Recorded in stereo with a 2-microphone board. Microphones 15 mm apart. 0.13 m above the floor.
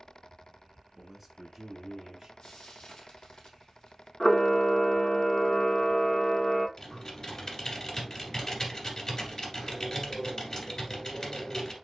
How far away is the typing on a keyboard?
About 1.8 m.